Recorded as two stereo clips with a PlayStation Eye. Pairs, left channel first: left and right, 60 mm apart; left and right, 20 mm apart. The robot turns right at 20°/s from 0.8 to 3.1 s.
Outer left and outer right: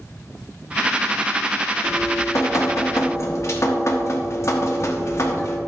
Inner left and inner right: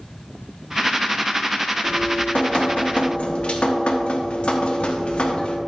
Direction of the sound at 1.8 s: 55° left (ahead or behind).